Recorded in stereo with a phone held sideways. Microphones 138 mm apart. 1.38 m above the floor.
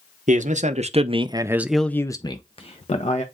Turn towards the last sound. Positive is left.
turn(degrees=55)  # may be behind; listen again after turning